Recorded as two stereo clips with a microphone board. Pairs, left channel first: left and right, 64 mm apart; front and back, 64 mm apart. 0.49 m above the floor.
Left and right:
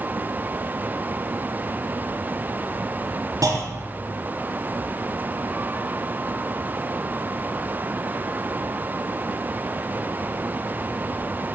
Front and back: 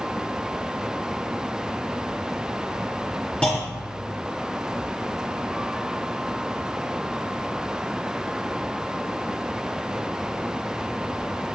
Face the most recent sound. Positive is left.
turn(degrees=-75)